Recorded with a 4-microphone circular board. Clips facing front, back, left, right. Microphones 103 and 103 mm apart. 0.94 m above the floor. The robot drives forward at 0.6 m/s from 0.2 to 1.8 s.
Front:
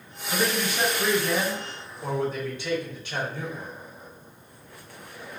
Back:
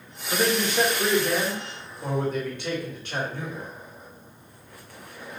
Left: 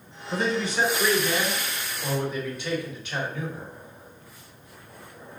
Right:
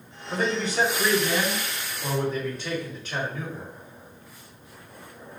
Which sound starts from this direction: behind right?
A man speaking, at 0.3 s.